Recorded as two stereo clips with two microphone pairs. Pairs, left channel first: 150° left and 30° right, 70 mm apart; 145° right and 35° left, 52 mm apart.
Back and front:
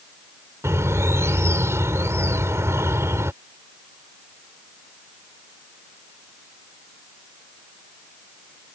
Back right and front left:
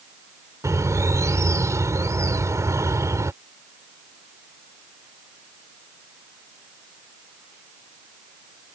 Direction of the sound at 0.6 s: 20° left.